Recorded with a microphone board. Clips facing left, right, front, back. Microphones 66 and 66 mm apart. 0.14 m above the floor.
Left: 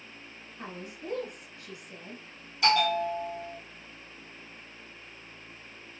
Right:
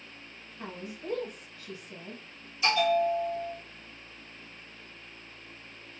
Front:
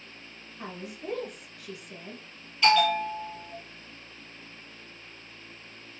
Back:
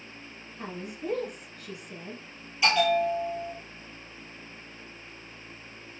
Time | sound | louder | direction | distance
0.6 | a woman speaking | right 1 dB, back 2 dB | 90° left | 1.6 m
2.6 | a bell | even, front 1 dB | 105° left | 1.1 m